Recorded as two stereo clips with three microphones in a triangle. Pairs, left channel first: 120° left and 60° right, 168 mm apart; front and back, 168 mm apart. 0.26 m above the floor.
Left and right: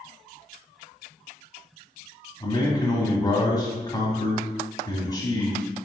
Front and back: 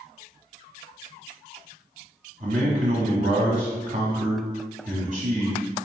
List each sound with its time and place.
2.4 s a man speaking: straight behind, 1.4 m